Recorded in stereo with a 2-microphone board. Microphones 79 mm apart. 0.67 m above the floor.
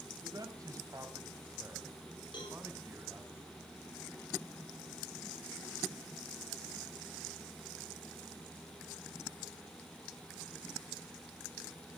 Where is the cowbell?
80° left, 7 m.